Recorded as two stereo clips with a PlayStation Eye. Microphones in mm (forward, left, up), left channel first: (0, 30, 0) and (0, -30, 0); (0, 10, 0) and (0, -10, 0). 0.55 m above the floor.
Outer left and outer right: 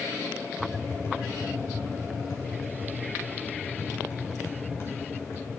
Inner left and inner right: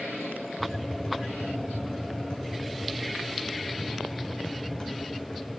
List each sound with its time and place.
0.6 s tapping: 45° left (ahead or behind), 2.5 m